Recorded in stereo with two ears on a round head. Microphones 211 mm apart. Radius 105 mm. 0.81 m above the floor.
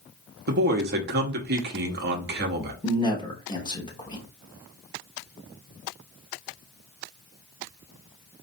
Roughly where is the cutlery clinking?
I don't hear cutlery clinking.